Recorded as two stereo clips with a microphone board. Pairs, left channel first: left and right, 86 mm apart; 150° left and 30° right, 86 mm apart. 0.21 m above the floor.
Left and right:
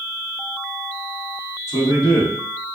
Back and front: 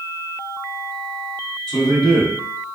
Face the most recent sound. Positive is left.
turn(degrees=75)